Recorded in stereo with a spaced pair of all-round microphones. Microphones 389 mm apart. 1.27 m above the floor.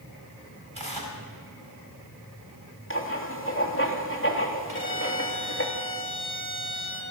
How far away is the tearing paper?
About 4 m.